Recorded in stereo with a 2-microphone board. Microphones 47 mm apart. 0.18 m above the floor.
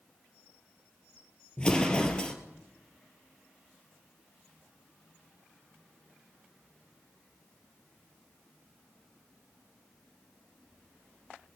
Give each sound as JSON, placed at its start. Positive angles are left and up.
{"t": 1.6, "sound": "an explosion", "side_deg": 20, "distance_m": 1.7}